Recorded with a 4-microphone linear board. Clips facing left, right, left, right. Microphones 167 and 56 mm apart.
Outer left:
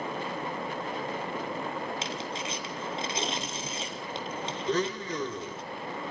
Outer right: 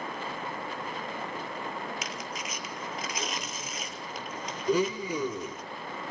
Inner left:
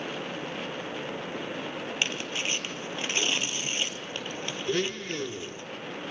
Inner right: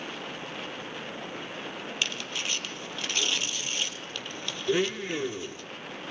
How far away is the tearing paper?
About 2.0 m.